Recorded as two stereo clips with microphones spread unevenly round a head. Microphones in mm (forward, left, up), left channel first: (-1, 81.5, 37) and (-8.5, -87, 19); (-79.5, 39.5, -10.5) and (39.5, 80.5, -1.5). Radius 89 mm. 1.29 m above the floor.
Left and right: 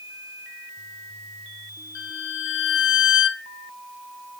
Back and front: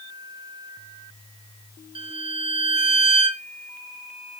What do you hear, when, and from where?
1.9 s a violin: 65° left, 0.7 m